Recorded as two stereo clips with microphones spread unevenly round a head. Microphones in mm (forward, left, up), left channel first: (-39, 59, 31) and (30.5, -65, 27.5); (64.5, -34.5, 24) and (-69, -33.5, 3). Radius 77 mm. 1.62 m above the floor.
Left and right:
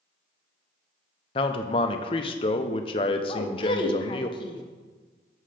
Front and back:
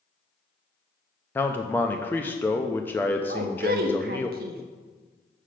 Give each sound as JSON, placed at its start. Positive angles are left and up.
{"t": 1.4, "sound": "a man speaking", "azimuth_deg": 70, "distance_m": 0.5}
{"t": 3.3, "sound": "a woman speaking", "azimuth_deg": 170, "distance_m": 0.8}